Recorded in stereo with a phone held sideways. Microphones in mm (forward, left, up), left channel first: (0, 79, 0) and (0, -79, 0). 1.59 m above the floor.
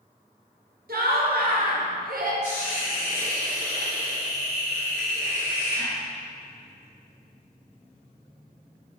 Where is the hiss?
15° left (ahead or behind), 1.0 m.